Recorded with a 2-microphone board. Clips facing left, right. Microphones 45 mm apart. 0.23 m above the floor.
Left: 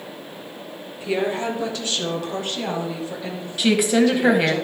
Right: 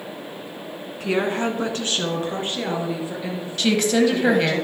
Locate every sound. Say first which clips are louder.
1.0 s a woman speaking: right 1 dB; 60° right (ahead or behind), 2 m; by 4.6 s centre (ahead or behind), 5 m
3.6 s a woman speaking: left 1 dB; 10° left (ahead or behind), 1.1 m